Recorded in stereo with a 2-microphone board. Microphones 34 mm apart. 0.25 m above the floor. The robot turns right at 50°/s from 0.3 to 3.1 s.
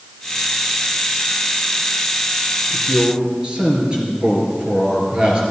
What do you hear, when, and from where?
2.7 s a man speaking: 10° right (ahead or behind), 3.5 m; by 5.4 s 30° right (ahead or behind), 3.5 m